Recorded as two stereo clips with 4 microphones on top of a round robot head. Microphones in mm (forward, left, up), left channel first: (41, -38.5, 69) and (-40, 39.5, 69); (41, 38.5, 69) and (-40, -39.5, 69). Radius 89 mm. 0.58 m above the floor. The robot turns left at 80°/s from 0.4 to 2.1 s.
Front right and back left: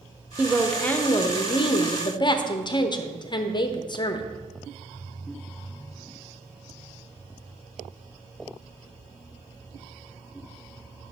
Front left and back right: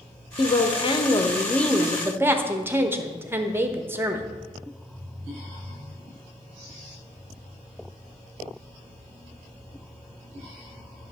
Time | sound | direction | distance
0.4 | a woman speaking | 65° left | 1.0 m